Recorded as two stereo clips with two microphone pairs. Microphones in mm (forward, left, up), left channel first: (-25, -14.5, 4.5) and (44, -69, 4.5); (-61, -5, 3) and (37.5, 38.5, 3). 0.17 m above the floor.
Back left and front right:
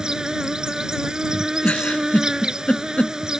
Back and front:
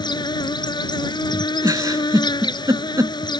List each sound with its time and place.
0.0 s an insect: 120° right
1.6 s a giggle: 70° left